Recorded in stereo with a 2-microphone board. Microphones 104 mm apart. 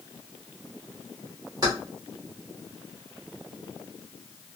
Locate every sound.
1.6 s keys jangling: 35° right (ahead or behind), 2 m